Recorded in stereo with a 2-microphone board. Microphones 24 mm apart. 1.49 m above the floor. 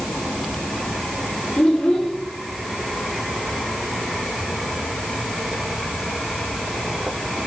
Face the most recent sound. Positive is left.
turn(degrees=60)  # may be behind; listen again after turning